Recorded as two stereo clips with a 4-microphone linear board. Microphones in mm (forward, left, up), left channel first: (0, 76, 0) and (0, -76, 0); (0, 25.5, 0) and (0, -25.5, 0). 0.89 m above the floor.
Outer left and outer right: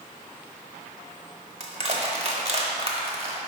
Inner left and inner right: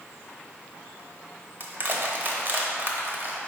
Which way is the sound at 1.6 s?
45° right (ahead or behind).